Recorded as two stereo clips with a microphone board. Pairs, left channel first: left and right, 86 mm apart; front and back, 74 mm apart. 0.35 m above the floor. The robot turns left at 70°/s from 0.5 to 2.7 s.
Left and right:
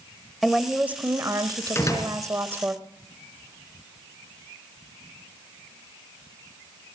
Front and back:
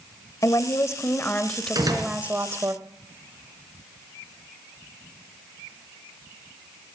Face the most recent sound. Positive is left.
turn(degrees=85)